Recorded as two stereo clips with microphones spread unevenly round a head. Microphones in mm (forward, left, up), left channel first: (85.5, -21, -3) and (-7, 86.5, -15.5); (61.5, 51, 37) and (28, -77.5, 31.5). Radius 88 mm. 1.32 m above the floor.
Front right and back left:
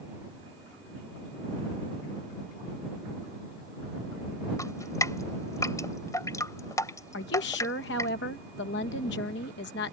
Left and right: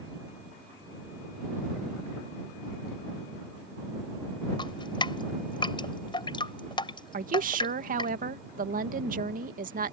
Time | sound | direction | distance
4.6 | dripping | 20° left | ?
7.1 | a woman speaking | 85° right | ?